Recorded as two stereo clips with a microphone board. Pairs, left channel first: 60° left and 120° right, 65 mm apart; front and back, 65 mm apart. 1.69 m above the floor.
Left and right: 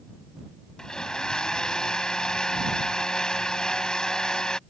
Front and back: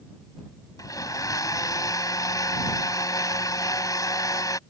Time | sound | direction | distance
0.8 | a blender | 20° right | ?